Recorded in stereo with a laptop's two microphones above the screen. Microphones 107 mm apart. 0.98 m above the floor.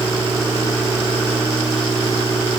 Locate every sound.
Only background noise.